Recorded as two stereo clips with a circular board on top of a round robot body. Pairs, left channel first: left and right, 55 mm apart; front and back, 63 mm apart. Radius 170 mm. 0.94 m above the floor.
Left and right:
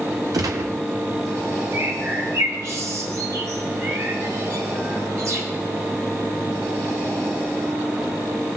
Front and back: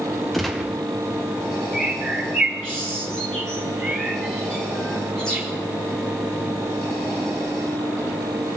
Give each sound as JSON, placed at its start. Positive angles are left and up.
{"t": 0.3, "sound": "a gunshot", "azimuth_deg": -90, "distance_m": 0.6}
{"t": 1.7, "sound": "a bird", "azimuth_deg": -80, "distance_m": 3.5}